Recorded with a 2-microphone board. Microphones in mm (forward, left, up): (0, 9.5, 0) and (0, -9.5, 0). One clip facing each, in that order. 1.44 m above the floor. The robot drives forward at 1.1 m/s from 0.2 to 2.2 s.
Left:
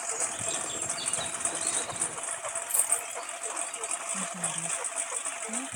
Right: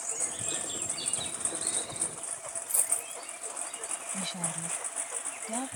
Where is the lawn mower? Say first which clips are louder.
Left 3 dB; 45° left (ahead or behind); by 5.8 s 35° left (ahead or behind).